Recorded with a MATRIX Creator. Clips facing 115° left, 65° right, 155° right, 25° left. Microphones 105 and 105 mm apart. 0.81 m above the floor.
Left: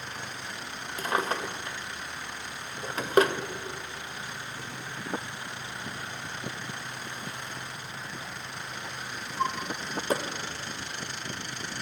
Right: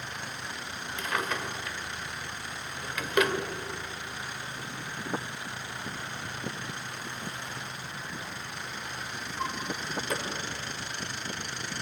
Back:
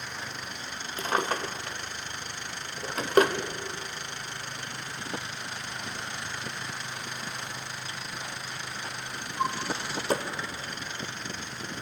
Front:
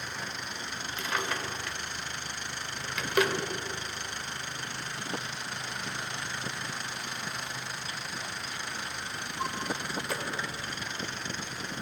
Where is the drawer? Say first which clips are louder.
Left 3 dB, back 5 dB; 160° left, 0.7 m.